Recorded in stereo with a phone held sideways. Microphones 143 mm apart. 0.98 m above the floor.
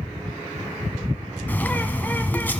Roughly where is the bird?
Centre.